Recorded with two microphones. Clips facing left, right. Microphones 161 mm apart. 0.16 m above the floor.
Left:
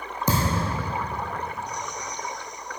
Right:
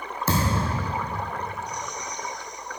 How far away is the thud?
About 3 m.